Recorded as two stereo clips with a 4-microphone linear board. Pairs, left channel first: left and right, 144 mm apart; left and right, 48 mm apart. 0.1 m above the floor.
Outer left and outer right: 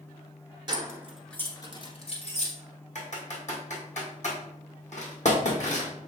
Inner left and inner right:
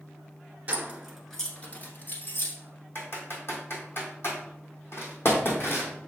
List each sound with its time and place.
0.7 s keys jangling: 30° right (ahead or behind), 1.0 m; by 2.5 s 55° left (ahead or behind), 1.6 m
3.0 s typing on a keyboard: 55° left (ahead or behind), 1.7 m